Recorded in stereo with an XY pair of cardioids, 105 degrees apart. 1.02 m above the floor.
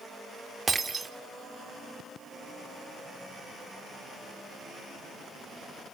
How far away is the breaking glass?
About 1.4 m.